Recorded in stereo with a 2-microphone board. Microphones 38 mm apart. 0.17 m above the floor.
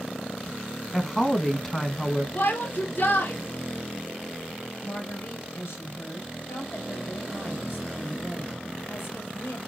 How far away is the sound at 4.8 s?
About 4 m.